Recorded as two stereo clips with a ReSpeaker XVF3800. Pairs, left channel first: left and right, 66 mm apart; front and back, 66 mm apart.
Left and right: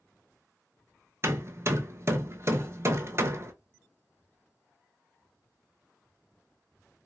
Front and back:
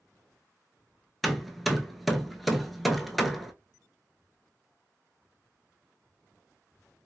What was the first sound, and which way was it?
Hammering, 90° right.